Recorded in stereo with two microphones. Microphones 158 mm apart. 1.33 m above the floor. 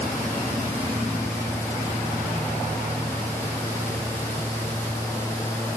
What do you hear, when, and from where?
Only background noise.